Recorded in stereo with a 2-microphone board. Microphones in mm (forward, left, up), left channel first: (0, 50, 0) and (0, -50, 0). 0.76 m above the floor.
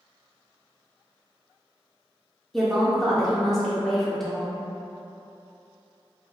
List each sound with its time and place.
2.5 s a woman speaking: centre (ahead or behind), 0.6 m